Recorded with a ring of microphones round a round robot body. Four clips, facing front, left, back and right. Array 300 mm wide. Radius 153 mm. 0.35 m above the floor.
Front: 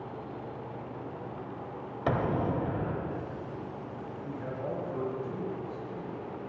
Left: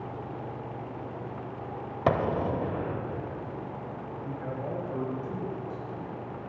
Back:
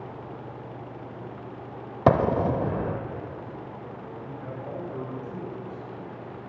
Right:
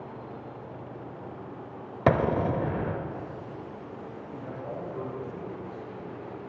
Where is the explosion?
160° right, 0.8 m.